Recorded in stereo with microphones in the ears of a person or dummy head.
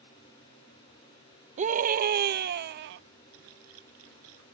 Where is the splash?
85° right.